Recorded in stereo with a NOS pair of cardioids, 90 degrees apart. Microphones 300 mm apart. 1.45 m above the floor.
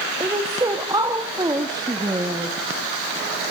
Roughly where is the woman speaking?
Ahead.